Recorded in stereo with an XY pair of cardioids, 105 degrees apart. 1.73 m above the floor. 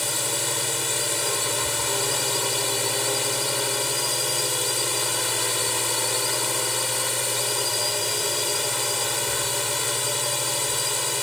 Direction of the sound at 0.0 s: 10° left.